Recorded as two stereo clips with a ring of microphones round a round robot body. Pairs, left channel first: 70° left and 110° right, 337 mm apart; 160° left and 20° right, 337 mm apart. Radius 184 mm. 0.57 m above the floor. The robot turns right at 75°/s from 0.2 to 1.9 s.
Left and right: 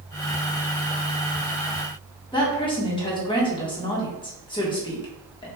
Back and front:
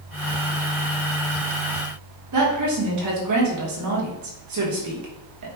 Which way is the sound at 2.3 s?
5° right.